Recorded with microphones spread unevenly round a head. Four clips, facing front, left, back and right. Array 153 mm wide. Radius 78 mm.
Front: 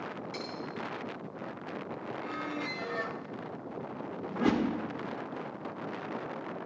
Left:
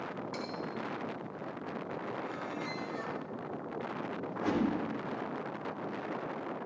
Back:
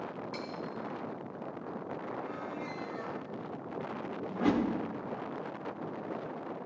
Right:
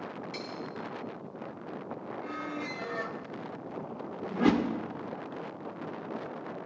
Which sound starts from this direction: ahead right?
A squeak, at 2.2 s.